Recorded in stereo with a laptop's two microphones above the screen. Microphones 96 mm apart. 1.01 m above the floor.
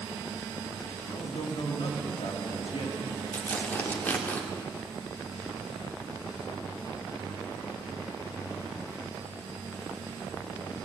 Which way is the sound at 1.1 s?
75° left (ahead or behind).